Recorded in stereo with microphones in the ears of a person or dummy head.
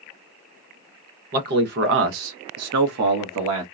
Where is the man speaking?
40° right (ahead or behind), 1.1 m; by 3.6 s 75° right (ahead or behind), 1.3 m.